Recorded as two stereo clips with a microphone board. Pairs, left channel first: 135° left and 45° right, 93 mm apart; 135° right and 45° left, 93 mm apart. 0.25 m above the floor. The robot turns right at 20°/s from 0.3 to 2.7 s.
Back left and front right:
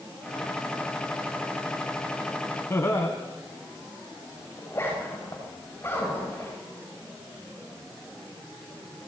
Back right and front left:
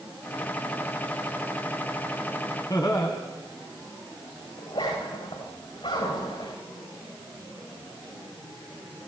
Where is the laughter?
170° right, 1.6 m.